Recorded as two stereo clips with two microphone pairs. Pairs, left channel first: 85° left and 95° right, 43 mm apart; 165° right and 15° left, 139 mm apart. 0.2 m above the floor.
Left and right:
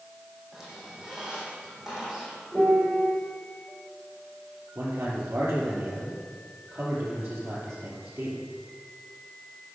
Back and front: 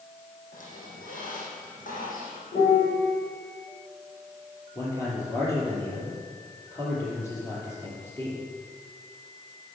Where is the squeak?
175° right, 3.5 m.